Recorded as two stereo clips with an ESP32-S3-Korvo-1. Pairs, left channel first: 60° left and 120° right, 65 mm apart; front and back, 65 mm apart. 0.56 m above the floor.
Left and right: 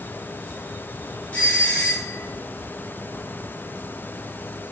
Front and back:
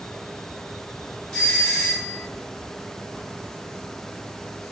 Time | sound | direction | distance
1.3 | a doorbell | 60° left | 1.1 m